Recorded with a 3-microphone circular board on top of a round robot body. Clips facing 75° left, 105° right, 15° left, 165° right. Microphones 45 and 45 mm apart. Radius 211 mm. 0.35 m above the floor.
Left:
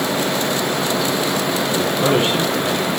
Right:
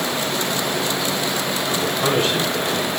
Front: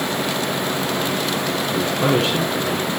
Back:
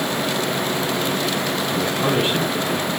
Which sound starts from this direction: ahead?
A man speaking, at 1.7 s.